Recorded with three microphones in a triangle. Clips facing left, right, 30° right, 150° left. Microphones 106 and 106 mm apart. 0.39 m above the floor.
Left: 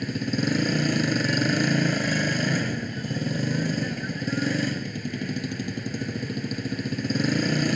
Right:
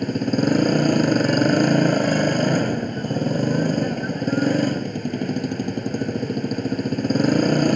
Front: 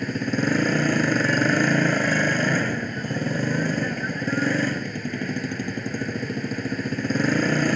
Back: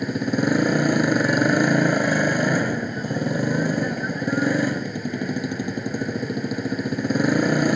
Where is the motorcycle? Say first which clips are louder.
Right 6 dB, back 2 dB; 135° right.